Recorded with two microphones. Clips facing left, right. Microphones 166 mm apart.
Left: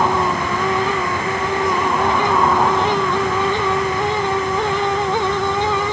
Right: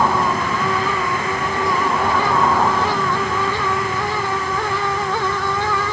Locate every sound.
Only background noise.